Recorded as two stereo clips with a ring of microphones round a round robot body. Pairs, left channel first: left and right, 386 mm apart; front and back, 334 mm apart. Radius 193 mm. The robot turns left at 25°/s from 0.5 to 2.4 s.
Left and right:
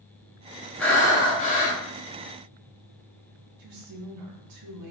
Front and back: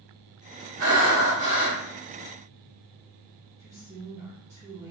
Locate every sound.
0.8 s breathing: straight behind, 2 m; by 1.8 s 155° left, 2 m
3.6 s a woman speaking: 100° right, 1.2 m